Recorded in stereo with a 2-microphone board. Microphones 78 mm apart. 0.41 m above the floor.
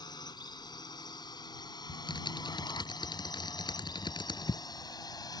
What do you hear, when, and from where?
0.0 s a drone: 65° left (ahead or behind); by 5.4 s 60° left (ahead or behind)
1.9 s typing on a keyboard: 80° left